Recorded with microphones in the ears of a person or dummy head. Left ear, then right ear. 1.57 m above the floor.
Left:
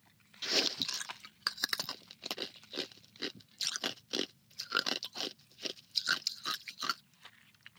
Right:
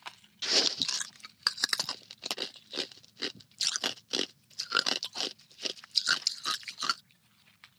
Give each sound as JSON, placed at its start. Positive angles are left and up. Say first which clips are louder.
{"t": 0.4, "sound": "chewing", "louder": "right 5 dB", "side_deg": -15}